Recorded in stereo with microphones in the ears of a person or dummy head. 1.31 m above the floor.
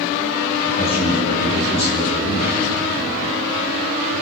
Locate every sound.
0.7 s a man speaking: 45° left (ahead or behind), 9 m